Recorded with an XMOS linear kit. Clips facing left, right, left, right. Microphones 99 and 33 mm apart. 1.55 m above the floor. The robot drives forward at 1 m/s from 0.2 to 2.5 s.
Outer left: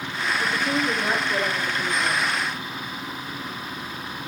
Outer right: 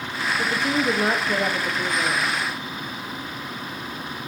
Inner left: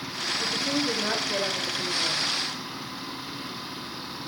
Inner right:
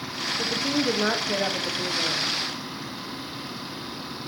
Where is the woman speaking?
75° right (ahead or behind), 2.5 m; by 2.3 s 60° right (ahead or behind), 3 m.